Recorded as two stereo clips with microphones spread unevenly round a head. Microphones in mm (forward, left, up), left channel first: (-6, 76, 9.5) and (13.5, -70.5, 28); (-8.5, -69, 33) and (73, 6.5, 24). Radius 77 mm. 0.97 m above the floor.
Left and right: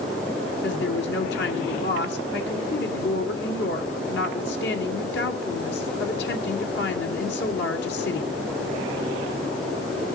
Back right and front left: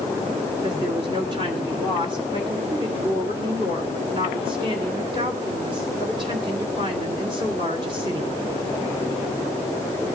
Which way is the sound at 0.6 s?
100° left.